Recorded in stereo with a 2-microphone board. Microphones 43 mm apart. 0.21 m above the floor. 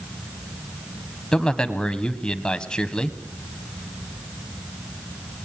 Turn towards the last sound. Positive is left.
turn(degrees=20)  # may be behind; listen again after turning